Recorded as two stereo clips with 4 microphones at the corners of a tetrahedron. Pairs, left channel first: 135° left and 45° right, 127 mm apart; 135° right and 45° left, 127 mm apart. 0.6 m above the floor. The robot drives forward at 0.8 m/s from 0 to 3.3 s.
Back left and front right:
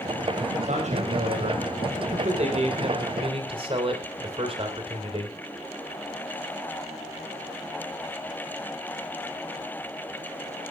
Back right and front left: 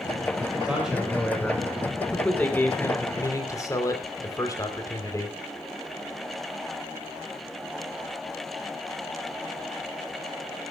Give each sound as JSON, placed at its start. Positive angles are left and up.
{"t": 0.6, "sound": "a man speaking", "azimuth_deg": -40, "distance_m": 3.5}